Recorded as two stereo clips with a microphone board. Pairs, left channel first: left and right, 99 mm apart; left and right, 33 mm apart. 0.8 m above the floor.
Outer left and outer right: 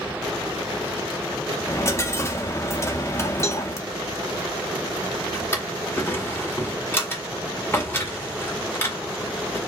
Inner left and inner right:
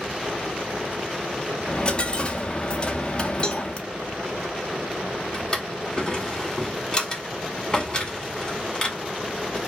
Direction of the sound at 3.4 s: 30° left (ahead or behind).